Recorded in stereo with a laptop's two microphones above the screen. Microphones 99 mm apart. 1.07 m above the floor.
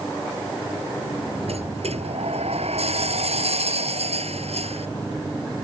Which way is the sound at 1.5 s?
90° right.